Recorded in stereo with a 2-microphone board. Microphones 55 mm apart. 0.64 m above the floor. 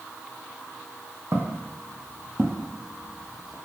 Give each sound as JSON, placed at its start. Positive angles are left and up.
{"t": 1.3, "sound": "footsteps", "side_deg": -45, "distance_m": 1.2}